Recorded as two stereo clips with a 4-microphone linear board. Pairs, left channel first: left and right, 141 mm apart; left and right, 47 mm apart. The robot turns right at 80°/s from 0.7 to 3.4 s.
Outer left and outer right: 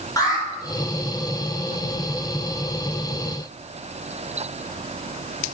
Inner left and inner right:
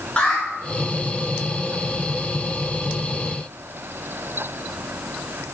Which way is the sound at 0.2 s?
25° left (ahead or behind).